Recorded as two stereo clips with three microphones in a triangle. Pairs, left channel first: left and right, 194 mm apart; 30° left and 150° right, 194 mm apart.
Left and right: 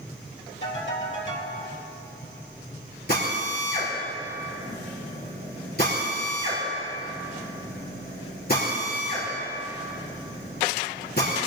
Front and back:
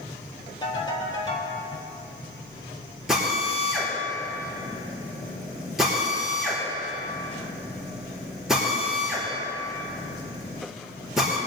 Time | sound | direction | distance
0.6 | a ringtone | 95° left | 3.5 m
3.1 | a drill | 120° left | 5.5 m